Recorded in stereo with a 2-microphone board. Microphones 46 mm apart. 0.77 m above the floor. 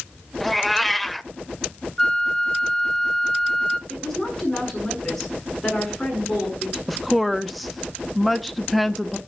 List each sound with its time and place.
0.4 s a cat meowing: centre (ahead or behind), 0.5 m
2.0 s a flute: 15° left (ahead or behind), 0.7 m
3.9 s a woman speaking: 5° left (ahead or behind), 7 m
6.9 s a woman speaking: centre (ahead or behind), 0.8 m